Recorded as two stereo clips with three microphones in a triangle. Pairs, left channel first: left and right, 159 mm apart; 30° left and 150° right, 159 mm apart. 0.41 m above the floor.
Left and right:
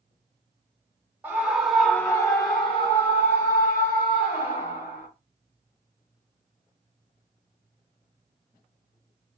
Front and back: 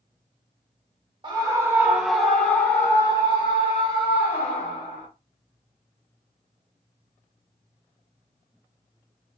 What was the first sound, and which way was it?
A scream, 150° right.